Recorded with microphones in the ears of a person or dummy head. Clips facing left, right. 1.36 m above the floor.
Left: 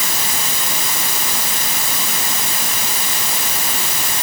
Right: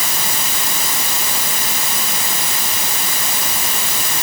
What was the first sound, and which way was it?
Only background noise.